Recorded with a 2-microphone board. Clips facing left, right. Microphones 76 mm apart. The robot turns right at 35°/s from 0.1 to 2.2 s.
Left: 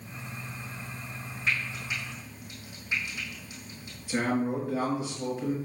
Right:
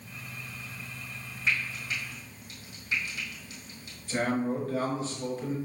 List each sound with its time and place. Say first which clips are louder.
1.5 s frying: even; centre (ahead or behind), 3 m; by 4.0 s 25° left (ahead or behind), 3 m
4.1 s a man speaking: left 1 dB; 10° left (ahead or behind), 3.5 m